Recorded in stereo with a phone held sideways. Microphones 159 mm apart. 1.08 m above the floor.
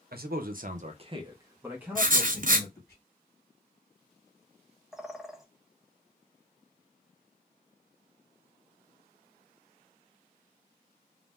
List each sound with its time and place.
0.1 s a man speaking: 65° right (ahead or behind), 0.7 m; by 3.0 s 5° left (ahead or behind), 1.4 m
1.9 s writing: 55° right (ahead or behind), 0.6 m
4.9 s a bird: 5° right (ahead or behind), 0.6 m